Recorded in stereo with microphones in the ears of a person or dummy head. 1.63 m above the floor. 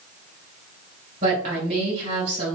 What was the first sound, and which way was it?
A woman speaking, 50° right (ahead or behind).